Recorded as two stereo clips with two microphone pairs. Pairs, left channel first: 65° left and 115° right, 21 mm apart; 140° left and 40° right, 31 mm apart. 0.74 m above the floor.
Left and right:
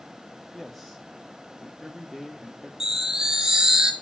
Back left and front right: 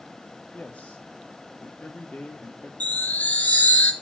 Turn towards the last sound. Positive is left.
turn(degrees=180)